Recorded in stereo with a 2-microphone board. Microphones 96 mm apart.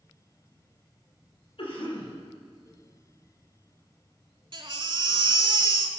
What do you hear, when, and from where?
1.6 s a cough: 70° left (ahead or behind), 4.5 m
4.5 s a baby crying: 55° right (ahead or behind), 1.1 m